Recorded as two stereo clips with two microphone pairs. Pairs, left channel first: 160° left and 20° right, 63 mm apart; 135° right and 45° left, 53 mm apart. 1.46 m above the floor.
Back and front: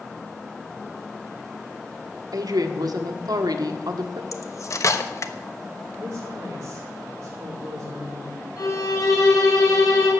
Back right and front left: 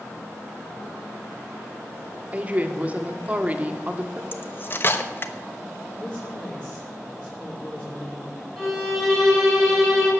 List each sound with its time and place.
2.3 s a woman speaking: 20° right, 1.7 m
4.3 s cutlery clinking: 175° right, 1.1 m
6.0 s a woman speaking: 65° right, 5 m
8.6 s a violin: 135° left, 6.5 m